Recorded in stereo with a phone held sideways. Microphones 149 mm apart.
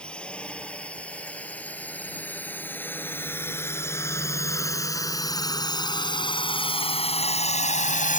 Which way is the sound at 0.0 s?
5° left (ahead or behind).